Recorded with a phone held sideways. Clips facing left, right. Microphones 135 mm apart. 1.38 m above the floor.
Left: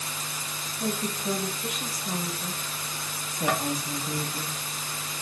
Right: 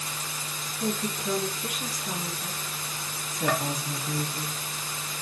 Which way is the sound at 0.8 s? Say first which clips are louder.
Even; 15° left (ahead or behind).